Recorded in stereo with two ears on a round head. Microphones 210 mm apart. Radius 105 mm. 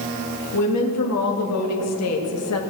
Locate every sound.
0.5 s a woman speaking: 80° left, 2.5 m; by 2.6 s 75° left (ahead or behind), 1.5 m